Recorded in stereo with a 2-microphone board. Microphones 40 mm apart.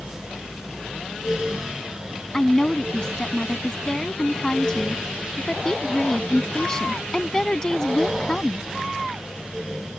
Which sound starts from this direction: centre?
A woman speaking, at 2.3 s.